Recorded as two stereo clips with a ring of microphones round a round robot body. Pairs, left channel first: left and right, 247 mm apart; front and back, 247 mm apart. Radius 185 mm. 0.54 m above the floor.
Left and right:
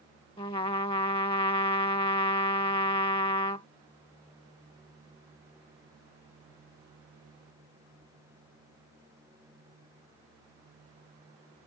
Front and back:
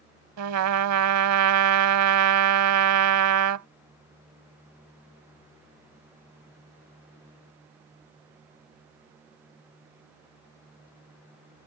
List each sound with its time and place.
0.4 s a trumpet: 165° left